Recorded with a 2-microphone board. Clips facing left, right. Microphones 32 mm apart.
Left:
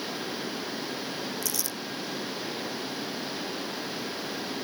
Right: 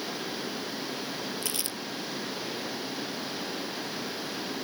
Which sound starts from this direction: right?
Crumpling, at 1.4 s.